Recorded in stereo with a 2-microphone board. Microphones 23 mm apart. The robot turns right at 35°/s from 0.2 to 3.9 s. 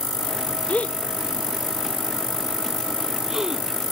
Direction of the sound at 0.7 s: 75° left (ahead or behind).